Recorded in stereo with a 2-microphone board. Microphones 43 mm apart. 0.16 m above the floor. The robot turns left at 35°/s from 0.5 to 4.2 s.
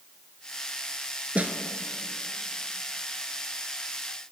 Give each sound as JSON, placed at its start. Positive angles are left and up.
{"t": 1.4, "sound": "a snare drum", "side_deg": -35, "distance_m": 0.9}